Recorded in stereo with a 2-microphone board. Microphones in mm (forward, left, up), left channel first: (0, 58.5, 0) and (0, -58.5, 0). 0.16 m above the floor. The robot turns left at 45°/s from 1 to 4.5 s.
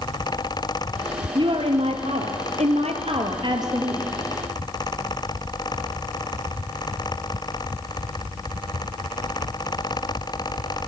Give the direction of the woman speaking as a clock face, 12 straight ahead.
1 o'clock.